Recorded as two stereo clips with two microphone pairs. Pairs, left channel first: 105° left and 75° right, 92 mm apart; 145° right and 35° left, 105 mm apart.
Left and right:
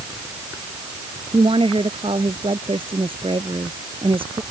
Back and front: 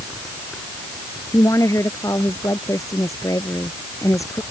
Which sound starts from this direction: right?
A woman speaking, at 1.3 s.